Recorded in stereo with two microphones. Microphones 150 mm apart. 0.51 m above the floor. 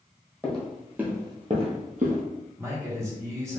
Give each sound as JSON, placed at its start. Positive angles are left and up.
{"t": 0.4, "sound": "footsteps", "side_deg": 10, "distance_m": 1.2}
{"t": 2.6, "sound": "a man speaking", "side_deg": -20, "distance_m": 0.9}